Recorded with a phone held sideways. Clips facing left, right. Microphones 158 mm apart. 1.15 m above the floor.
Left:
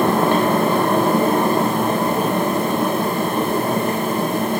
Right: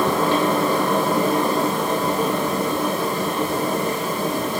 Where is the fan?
65° left (ahead or behind), 2 m.